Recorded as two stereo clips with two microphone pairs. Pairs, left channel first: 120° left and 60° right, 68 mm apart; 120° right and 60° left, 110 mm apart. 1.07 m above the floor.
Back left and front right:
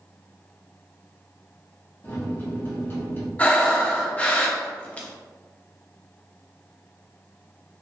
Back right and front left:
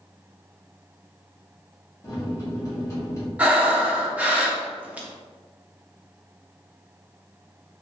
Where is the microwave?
175° left, 1.3 m.